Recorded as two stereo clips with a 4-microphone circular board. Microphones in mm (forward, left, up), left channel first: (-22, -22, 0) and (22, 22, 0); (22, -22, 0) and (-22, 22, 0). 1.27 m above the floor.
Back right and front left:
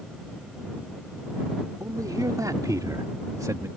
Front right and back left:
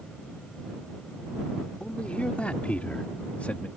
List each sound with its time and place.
1.8 s a man speaking: 25° left; by 3.7 s 20° left